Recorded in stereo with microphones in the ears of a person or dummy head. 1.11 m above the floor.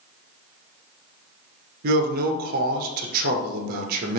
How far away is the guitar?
No guitar in this recording.